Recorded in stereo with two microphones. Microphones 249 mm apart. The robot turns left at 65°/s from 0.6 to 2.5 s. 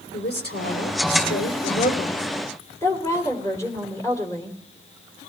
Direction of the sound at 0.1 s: 135° left.